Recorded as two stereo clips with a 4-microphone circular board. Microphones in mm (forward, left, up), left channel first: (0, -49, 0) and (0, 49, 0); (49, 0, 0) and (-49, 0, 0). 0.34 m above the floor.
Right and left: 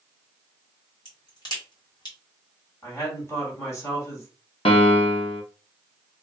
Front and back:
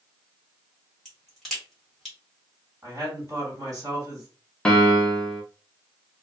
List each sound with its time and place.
1.1 s a crack: 90° right, 1.7 m
2.8 s a woman speaking: 140° right, 1.8 m
4.7 s a piano: 80° right, 0.7 m